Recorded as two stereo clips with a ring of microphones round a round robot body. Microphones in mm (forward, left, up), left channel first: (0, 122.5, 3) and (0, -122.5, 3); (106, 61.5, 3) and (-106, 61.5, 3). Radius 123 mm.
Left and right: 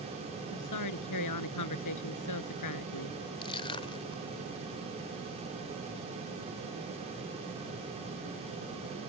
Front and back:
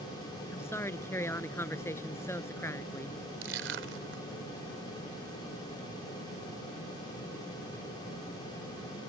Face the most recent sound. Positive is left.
turn(degrees=160)